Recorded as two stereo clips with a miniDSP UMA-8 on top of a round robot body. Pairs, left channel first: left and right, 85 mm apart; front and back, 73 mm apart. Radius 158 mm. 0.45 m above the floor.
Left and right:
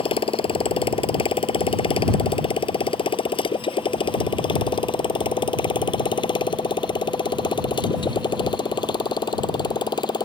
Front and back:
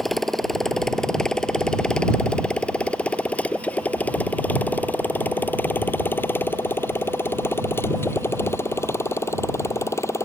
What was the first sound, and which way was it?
A motorcycle, 90° left.